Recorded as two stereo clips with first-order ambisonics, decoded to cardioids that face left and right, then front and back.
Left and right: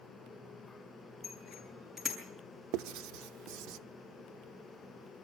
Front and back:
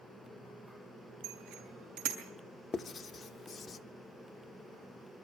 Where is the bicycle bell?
Straight behind, 6 m.